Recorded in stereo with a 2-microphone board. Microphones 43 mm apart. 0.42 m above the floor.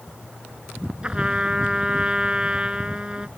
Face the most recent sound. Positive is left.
turn(degrees=-20)  # may be behind; listen again after turning